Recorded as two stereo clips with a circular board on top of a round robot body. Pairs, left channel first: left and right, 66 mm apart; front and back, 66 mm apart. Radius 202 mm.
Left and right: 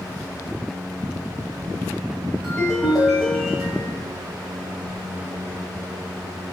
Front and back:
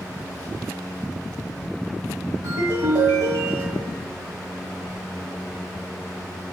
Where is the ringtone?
175° right, 1.2 m.